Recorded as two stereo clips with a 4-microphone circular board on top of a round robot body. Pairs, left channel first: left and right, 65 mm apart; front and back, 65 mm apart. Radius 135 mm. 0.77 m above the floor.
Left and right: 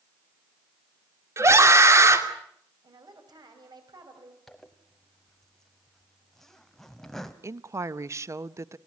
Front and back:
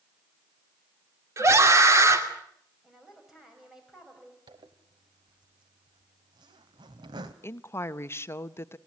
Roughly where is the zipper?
Behind.